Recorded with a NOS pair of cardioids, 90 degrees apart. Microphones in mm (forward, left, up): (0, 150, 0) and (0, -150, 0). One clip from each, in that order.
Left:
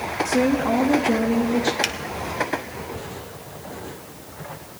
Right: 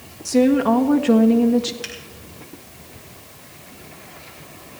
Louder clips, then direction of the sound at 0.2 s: Right 5 dB; 45° right.